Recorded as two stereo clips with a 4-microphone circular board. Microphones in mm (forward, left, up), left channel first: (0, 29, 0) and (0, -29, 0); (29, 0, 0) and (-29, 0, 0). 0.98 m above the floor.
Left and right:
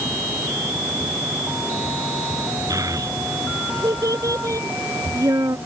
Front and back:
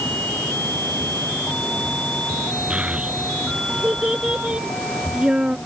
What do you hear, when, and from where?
2.7 s a child speaking: 110° right